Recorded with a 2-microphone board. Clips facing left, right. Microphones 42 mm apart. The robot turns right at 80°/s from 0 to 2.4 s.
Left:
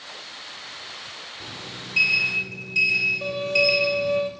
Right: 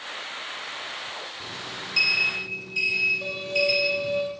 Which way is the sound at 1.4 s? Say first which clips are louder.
Right 2 dB; 10° right.